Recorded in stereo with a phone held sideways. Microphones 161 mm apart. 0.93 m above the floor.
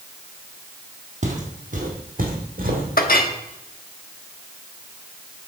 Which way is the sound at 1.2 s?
50° right (ahead or behind).